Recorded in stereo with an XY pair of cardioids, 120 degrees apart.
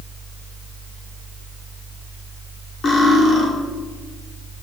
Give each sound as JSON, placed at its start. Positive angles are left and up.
{"t": 0.0, "sound": "a fan", "azimuth_deg": 30, "distance_m": 2.0}
{"t": 2.8, "sound": "cutlery clinking", "azimuth_deg": 45, "distance_m": 1.6}